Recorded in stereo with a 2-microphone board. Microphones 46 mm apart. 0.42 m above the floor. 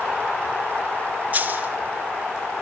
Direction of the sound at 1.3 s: 35° right (ahead or behind).